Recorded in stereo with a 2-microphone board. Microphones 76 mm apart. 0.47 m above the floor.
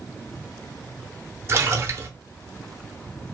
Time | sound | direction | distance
1.5 | a splash | 35° right (ahead or behind) | 0.6 m